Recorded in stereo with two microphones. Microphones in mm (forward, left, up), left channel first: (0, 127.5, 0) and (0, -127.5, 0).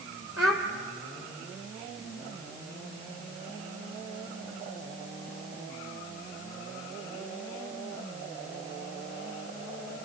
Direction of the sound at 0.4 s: 65° left (ahead or behind).